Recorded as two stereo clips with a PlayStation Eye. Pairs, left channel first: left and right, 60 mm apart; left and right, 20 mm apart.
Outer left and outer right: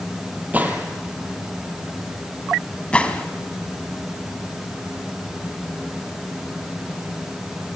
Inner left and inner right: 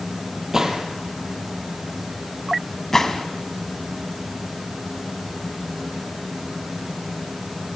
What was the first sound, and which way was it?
A gunshot, 25° right (ahead or behind).